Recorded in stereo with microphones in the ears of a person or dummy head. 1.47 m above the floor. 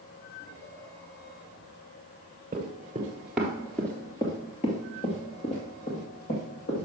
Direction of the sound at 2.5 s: 30° right (ahead or behind).